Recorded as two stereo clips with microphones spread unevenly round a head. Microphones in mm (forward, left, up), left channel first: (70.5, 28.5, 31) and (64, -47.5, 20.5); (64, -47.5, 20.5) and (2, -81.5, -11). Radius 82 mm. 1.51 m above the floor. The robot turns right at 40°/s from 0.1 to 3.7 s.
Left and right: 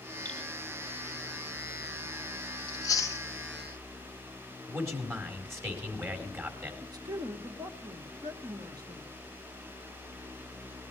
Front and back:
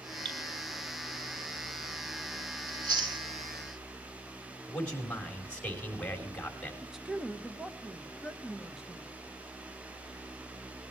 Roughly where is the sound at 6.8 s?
Ahead right.